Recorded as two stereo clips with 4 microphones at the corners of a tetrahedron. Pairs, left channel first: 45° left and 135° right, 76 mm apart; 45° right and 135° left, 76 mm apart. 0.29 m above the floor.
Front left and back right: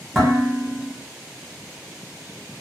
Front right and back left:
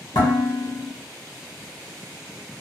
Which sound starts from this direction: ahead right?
Dishes clattering, at 0.1 s.